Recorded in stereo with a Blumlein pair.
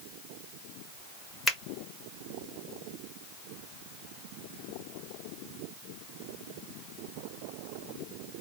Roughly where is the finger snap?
Ahead.